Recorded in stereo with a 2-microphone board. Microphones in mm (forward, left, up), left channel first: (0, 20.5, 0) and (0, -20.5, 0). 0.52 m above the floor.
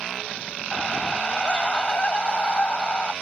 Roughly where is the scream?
Left.